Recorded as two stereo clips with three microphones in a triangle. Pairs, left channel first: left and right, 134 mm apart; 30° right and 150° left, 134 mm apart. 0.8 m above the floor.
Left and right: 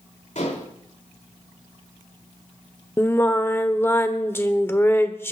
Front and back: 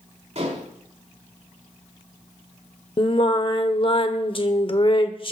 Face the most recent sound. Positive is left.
turn(degrees=15)